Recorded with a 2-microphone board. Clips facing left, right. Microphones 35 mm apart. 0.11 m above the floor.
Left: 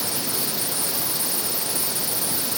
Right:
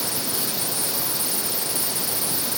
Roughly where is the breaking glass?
I don't hear breaking glass.